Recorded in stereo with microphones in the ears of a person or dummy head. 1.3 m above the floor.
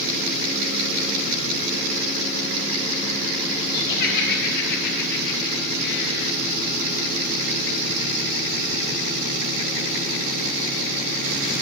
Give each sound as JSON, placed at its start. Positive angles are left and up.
{"t": 3.7, "sound": "laughter", "side_deg": 50, "distance_m": 3.0}